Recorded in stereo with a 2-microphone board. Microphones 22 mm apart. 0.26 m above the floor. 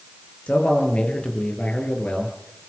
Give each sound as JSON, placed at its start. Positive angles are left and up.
{"t": 0.5, "sound": "a man speaking", "side_deg": 75, "distance_m": 5.5}